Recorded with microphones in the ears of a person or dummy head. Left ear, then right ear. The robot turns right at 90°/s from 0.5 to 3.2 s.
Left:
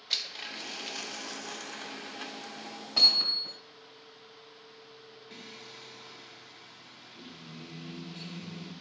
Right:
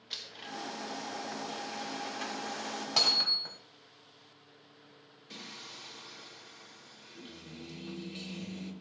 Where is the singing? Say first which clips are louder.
Right 2 dB; 40° right (ahead or behind), 3.5 m.